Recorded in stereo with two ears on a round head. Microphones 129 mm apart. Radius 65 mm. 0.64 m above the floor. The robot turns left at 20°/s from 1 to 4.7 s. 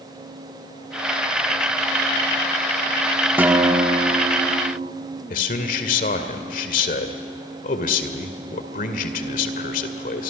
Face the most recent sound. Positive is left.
turn(degrees=55)  # may be behind; listen again after turning